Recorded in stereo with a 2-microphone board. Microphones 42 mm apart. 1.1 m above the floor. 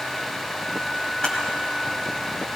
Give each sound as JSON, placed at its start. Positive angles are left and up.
{"t": 1.2, "sound": "a camera shutter", "side_deg": 15, "distance_m": 2.0}